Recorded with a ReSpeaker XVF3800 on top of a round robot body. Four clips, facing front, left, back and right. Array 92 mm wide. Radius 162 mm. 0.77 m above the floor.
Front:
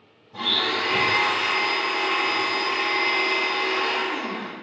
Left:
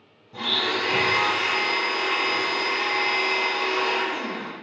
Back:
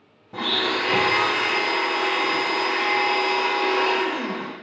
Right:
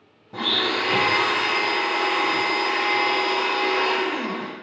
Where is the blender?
140° right, 0.5 m.